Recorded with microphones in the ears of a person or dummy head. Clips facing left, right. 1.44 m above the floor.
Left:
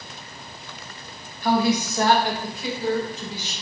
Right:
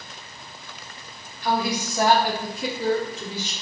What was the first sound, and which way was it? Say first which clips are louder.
A woman speaking: left 4 dB; 45° left (ahead or behind).